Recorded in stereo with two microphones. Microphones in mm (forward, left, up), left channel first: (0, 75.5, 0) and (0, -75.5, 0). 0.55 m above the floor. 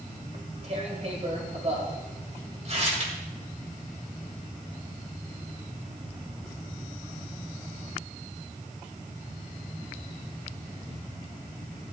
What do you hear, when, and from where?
0.3 s tearing paper: 45° right (ahead or behind), 1.9 m